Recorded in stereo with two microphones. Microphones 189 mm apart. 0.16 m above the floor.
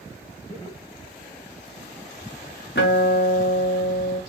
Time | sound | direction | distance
0.5 | laughter | 30° left (ahead or behind) | 2.5 m
2.8 | a guitar | 75° left (ahead or behind) | 3 m